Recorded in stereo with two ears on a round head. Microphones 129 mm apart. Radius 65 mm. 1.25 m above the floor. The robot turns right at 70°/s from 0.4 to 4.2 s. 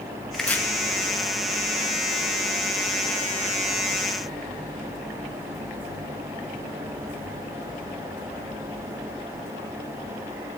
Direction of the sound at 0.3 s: 5° left (ahead or behind).